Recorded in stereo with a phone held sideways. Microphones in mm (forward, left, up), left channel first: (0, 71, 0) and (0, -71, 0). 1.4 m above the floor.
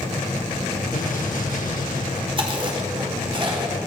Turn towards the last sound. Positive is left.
turn(degrees=-35)  # may be behind; listen again after turning